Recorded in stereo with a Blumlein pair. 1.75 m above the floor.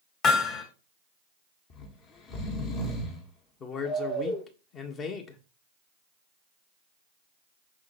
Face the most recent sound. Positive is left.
turn(degrees=25)